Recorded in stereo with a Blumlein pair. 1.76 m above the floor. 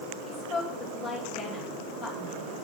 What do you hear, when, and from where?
0.2 s a woman speaking: 5° right, 8.5 m